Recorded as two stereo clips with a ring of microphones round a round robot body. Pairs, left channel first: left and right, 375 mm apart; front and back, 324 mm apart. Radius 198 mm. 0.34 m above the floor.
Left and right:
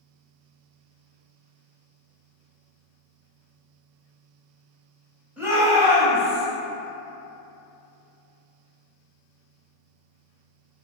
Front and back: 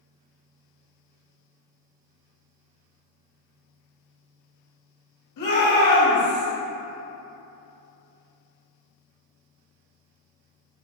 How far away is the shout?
About 1.7 m.